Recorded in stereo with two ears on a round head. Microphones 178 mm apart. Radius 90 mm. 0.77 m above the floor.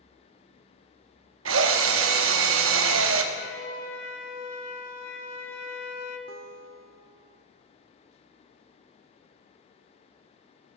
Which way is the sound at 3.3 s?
50° left (ahead or behind).